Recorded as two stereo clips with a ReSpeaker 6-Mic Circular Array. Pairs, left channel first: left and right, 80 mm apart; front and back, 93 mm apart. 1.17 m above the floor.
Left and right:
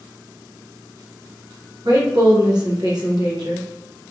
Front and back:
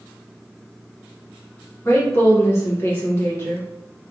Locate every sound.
1.9 s a woman speaking: 60° right, 0.9 m